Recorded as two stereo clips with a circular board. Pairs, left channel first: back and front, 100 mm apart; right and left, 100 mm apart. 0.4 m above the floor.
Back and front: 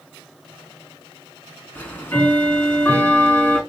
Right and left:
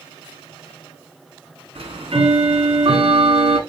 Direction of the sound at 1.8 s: 110° left.